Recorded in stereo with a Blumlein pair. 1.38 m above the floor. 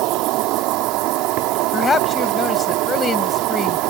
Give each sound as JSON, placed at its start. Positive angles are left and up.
{"t": 0.0, "sound": "an insect", "azimuth_deg": -40}
{"t": 1.7, "sound": "a woman speaking", "azimuth_deg": 15}